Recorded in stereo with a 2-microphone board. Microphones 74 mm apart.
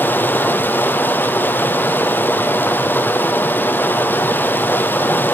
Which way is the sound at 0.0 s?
30° left (ahead or behind).